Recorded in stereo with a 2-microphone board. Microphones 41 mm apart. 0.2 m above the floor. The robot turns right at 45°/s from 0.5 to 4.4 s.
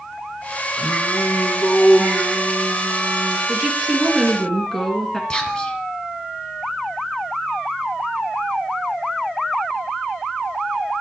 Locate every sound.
0.8 s singing: 100° left, 3.5 m; by 3.4 s 140° right, 3.5 m
3.5 s a woman speaking: 30° right, 2.5 m; by 5.2 s 10° left, 2.5 m
5.3 s whispering: 25° left (ahead or behind), 1.8 m